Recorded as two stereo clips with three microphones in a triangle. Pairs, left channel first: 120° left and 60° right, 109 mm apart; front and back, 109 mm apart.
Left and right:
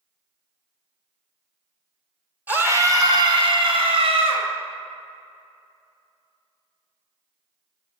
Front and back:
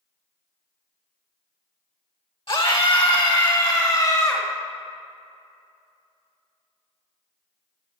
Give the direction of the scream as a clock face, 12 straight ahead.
12 o'clock.